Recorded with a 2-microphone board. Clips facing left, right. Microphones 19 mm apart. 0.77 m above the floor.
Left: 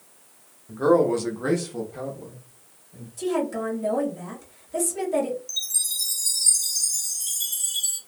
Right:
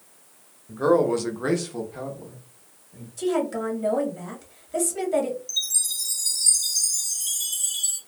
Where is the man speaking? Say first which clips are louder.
Left 1 dB; 5° right (ahead or behind), 0.8 m; by 3.1 s 15° right (ahead or behind), 1.3 m.